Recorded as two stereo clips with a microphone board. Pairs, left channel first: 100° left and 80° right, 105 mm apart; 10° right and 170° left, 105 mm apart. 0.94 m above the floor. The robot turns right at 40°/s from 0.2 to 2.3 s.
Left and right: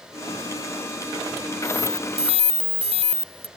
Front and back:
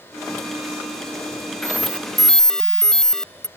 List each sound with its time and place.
1.6 s an alarm: 125° right; by 3.5 s 95° right